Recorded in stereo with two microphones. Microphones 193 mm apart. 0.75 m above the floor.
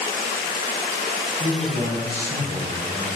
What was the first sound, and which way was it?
A man speaking, 60° left (ahead or behind).